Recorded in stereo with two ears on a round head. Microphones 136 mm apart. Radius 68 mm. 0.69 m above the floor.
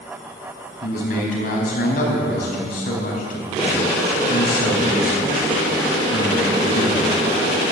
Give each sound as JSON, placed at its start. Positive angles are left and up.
{"t": 0.8, "sound": "a man speaking", "side_deg": 55, "distance_m": 4.5}